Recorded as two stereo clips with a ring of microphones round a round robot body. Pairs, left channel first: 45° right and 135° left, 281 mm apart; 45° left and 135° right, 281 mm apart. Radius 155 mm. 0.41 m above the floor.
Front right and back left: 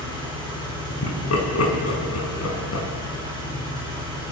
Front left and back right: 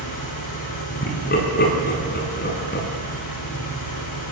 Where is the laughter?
10° right, 5.5 m.